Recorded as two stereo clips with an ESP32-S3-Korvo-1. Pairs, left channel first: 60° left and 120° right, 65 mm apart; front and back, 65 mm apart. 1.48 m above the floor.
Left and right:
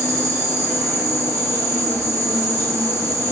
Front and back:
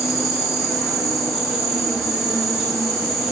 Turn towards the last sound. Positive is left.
turn(degrees=-95)